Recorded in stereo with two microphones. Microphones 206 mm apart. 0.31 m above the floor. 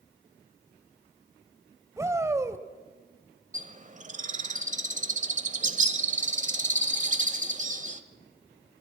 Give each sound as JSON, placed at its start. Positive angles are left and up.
{"t": 2.0, "sound": "a shout", "side_deg": -15, "distance_m": 1.2}
{"t": 3.5, "sound": "a bird", "side_deg": -40, "distance_m": 1.0}